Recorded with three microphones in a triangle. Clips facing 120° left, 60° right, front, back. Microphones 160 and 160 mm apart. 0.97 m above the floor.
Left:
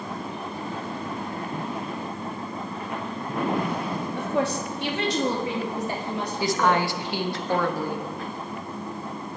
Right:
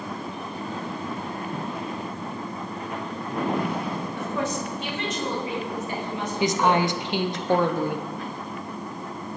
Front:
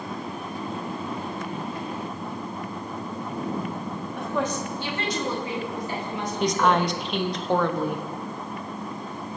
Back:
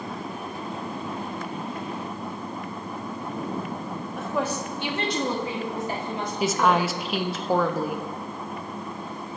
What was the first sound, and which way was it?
A woman speaking, 90° left.